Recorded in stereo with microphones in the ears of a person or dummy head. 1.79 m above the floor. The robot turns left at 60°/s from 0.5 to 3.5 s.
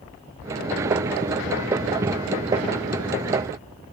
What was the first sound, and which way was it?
Only background noise.